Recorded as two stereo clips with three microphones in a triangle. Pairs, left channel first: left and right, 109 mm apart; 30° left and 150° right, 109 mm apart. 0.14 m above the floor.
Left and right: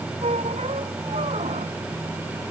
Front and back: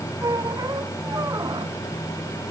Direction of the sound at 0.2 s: 95° right.